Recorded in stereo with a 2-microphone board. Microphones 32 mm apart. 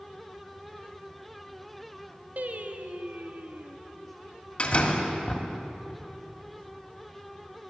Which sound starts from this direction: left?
A door slam, at 4.6 s.